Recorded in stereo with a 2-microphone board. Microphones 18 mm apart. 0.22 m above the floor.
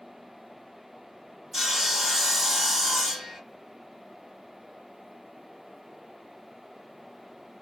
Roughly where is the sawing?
Centre.